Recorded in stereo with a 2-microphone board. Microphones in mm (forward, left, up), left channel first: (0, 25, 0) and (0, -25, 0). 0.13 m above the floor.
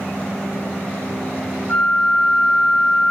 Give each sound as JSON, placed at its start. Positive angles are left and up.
{"t": 1.7, "sound": "a flute", "side_deg": 40, "distance_m": 1.7}